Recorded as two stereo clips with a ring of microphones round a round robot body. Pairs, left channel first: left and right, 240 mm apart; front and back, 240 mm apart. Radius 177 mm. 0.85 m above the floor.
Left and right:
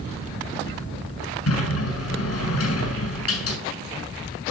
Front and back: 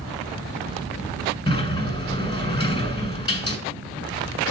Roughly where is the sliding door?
Left.